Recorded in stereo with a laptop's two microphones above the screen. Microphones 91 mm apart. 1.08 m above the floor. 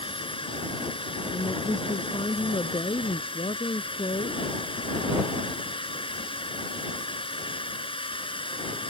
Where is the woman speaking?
85° left.